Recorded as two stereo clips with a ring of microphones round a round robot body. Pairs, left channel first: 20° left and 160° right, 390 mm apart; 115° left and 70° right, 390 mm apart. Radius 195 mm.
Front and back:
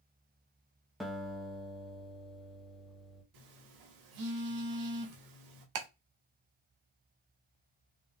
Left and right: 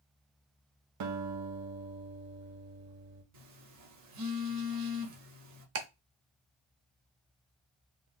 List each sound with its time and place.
1.0 s a guitar: 70° right, 0.9 m
3.3 s a phone buzzing: 115° right, 1.3 m
5.8 s ticking: 125° right, 1.0 m